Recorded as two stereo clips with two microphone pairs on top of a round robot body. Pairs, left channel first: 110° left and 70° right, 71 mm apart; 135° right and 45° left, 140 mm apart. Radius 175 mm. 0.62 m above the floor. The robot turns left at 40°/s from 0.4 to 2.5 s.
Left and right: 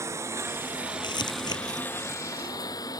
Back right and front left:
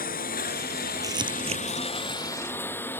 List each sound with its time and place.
0.0 s a lawn mower: 120° right; by 3.0 s 150° left
1.0 s crumpling: 110° left; by 1.9 s 80° left